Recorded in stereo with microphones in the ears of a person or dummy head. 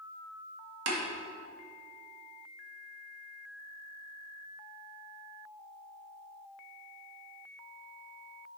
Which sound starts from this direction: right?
Tapping, at 0.9 s.